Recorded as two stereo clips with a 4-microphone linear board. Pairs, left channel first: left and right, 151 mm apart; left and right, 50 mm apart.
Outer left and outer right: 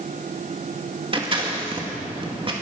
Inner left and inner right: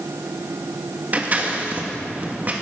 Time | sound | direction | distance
1.1 | scissors | 35° right (ahead or behind) | 2 m